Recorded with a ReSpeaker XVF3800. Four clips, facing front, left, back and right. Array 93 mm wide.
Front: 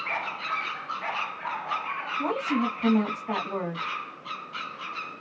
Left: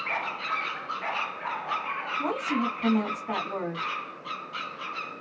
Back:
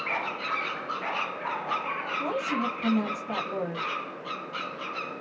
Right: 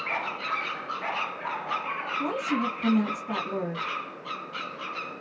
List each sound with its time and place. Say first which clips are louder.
2.2 s a woman speaking: even, front 3 dB; 40° left, 1.8 m